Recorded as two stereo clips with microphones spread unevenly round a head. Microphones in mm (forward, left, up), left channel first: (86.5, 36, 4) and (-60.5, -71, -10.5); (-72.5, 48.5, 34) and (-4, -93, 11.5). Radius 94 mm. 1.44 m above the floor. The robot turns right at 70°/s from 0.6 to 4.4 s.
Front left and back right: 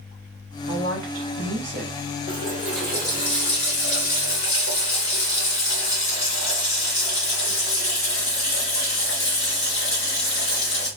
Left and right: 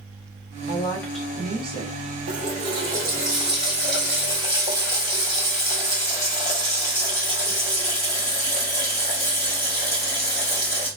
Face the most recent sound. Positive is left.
turn(degrees=60)